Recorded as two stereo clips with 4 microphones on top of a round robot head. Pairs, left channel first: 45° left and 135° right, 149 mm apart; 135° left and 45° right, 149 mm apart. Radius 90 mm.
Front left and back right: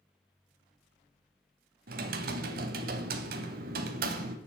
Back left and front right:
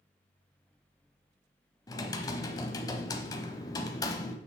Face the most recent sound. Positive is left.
turn(degrees=-160)